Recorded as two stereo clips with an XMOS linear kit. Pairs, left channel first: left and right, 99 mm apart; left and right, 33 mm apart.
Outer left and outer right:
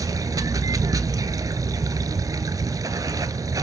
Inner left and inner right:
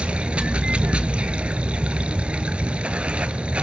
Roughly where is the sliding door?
No sliding door in this recording.